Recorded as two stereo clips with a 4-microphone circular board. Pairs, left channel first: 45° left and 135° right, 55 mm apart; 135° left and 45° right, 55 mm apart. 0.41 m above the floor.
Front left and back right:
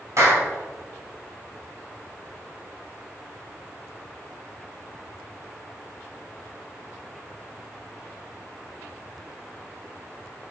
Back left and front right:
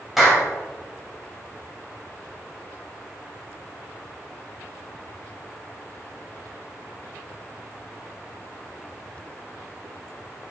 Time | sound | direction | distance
0.2 | a clap | 135° right | 2.5 m